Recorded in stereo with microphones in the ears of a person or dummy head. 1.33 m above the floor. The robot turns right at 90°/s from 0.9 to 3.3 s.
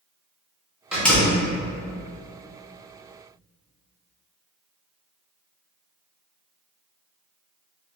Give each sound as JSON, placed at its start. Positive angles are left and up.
{"t": 0.9, "sound": "a door slam", "side_deg": -5, "distance_m": 0.6}